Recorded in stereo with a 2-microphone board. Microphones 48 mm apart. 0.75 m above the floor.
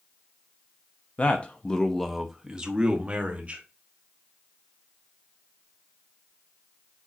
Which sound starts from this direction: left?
A man speaking, at 1.2 s.